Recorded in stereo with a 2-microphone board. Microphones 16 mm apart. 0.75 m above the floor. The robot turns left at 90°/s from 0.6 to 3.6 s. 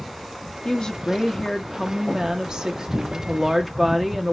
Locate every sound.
0.7 s a woman speaking: 95° left, 1.0 m; by 4.3 s 170° right, 1.0 m